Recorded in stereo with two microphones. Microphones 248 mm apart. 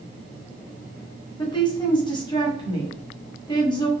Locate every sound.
1.4 s a woman speaking: 20° left (ahead or behind), 1.0 m